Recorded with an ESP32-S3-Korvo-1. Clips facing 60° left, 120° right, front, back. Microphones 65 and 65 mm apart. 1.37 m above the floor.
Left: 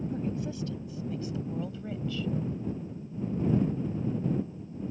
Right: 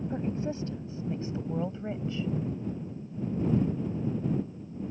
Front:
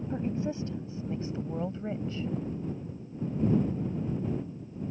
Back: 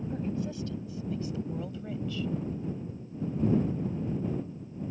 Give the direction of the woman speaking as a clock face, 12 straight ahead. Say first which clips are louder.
Right 1 dB, front 3 dB; 2 o'clock.